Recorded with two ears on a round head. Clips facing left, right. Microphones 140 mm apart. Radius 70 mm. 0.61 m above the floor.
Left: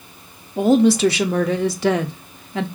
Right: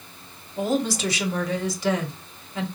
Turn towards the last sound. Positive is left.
turn(degrees=55)  # may be behind; listen again after turning